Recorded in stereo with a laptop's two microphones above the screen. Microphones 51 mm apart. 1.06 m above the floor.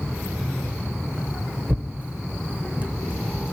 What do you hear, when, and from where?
1.7 s tearing paper: 25° right (ahead or behind), 0.8 m